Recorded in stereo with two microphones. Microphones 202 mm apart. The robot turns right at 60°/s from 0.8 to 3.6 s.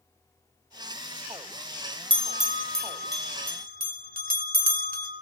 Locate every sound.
2.1 s a bell: 25° right (ahead or behind), 1.5 m; by 5.1 s 45° right (ahead or behind), 1.5 m